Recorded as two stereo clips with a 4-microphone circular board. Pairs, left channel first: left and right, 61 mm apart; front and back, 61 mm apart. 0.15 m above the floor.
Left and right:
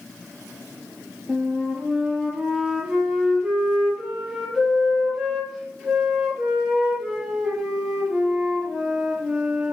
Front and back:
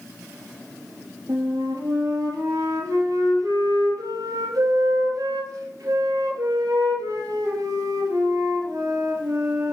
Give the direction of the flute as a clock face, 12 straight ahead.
5 o'clock.